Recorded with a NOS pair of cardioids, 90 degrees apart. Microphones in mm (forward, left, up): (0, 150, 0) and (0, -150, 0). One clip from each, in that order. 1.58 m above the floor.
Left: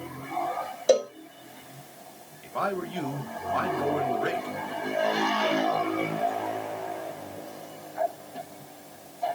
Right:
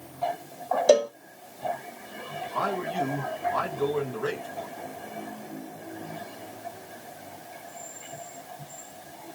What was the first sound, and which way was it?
A cowbell, 10° right.